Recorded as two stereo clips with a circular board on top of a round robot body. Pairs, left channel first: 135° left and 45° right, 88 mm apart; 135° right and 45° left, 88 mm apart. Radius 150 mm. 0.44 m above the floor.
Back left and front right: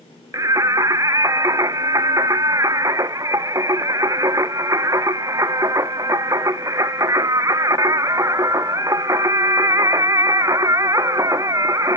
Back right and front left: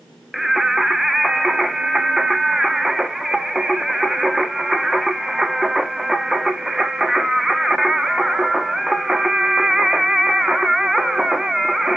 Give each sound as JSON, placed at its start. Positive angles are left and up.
{"t": 0.3, "sound": "singing", "azimuth_deg": -40, "distance_m": 1.0}